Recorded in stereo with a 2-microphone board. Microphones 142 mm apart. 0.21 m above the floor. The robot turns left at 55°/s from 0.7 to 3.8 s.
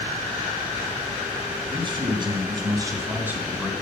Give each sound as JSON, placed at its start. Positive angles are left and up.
{"t": 1.7, "sound": "a man speaking", "azimuth_deg": -65, "distance_m": 1.7}